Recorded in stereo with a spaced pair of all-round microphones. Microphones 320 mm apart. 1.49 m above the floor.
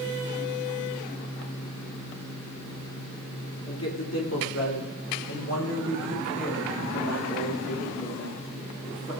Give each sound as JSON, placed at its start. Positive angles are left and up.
{"t": 3.7, "sound": "a man speaking", "side_deg": 50, "distance_m": 3.0}